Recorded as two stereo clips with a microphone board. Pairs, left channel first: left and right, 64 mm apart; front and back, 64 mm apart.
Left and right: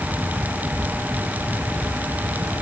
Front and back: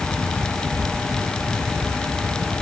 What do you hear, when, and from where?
Only background noise.